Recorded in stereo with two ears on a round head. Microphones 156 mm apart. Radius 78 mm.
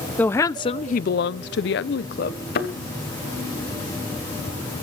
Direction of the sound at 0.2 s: 10° left (ahead or behind).